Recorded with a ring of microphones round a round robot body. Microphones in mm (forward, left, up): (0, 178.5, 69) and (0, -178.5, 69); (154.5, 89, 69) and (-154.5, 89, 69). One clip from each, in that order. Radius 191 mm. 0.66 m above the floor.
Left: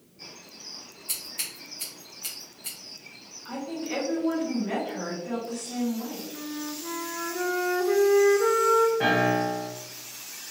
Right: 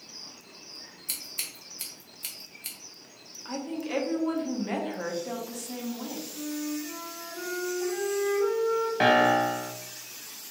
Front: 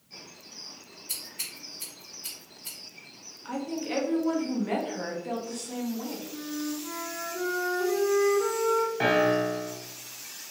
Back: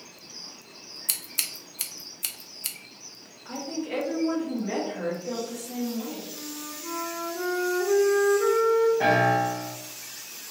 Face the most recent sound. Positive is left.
turn(degrees=-55)